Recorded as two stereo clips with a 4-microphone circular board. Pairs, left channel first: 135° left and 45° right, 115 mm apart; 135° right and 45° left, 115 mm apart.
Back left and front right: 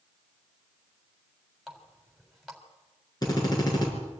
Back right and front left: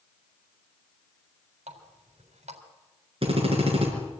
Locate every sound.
1.7 s a running tap: 45° left, 3.5 m
3.2 s a drill: 80° left, 6 m